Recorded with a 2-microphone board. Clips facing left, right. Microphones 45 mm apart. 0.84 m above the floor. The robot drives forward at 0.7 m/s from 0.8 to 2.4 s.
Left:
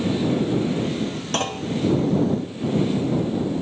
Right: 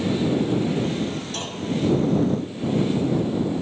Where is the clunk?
65° left (ahead or behind), 0.9 m; by 1.7 s 55° left (ahead or behind), 1.0 m.